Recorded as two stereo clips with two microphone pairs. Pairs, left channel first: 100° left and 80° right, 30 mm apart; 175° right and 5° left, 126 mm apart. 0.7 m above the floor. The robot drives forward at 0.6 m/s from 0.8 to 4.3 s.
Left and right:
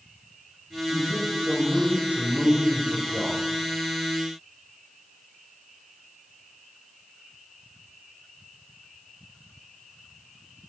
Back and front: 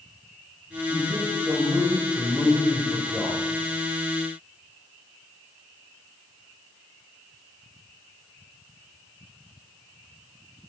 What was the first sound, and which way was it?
A man speaking, 65° right.